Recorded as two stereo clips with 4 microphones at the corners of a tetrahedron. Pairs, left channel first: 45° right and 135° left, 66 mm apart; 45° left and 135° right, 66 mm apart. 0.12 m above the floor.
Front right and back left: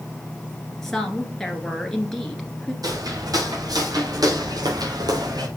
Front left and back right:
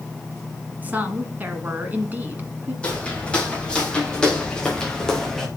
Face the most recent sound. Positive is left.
turn(degrees=125)